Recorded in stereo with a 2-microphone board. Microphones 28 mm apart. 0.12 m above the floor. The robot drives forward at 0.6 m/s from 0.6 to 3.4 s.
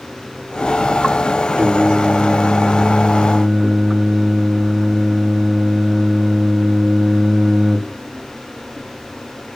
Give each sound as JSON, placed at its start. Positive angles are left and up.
{"t": 1.6, "sound": "singing", "side_deg": -45, "distance_m": 5.5}